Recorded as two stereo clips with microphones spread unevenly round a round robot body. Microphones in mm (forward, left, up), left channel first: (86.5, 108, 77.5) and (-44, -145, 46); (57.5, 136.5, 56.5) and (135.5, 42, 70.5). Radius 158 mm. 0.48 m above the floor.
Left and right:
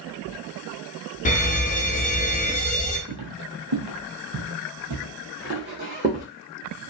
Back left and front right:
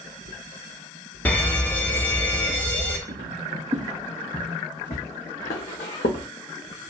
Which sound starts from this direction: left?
An alarm, at 1.2 s.